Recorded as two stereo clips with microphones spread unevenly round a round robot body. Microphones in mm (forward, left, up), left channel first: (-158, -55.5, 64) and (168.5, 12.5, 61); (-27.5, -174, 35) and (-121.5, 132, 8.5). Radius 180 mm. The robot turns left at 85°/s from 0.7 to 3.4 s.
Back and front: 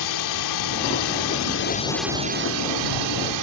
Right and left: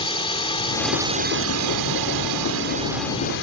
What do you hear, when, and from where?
0.0 s a drone: 145° right; by 3.4 s 15° right